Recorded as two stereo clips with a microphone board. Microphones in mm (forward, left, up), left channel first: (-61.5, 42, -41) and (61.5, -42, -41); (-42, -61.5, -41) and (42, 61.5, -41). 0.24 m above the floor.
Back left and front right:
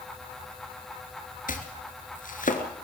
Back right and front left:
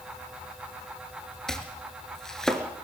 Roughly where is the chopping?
Behind left.